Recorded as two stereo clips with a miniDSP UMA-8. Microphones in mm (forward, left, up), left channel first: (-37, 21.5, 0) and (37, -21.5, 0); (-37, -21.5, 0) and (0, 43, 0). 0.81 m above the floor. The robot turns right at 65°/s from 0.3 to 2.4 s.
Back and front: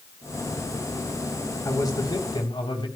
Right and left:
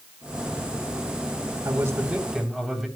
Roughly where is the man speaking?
Left.